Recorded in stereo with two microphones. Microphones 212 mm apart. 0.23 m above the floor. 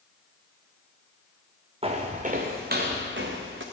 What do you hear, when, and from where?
1.8 s footsteps: 30° right (ahead or behind), 1.3 m; by 3.6 s 70° right (ahead or behind), 1.5 m